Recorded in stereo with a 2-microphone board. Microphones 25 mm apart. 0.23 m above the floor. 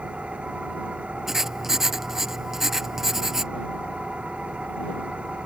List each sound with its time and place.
0.0 s an engine running: 50° right (ahead or behind)
1.3 s writing: 15° right (ahead or behind)